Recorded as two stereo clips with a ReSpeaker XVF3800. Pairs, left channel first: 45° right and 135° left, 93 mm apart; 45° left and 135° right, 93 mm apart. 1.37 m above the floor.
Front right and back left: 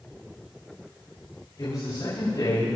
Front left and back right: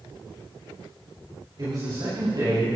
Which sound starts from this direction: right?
A man speaking, at 1.6 s.